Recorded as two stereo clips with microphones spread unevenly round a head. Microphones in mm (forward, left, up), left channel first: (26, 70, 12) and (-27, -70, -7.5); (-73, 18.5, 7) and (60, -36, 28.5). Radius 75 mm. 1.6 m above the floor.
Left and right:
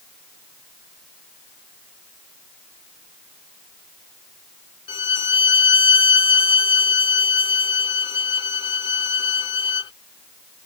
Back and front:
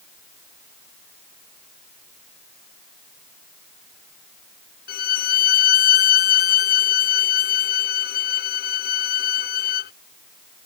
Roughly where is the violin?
Behind left.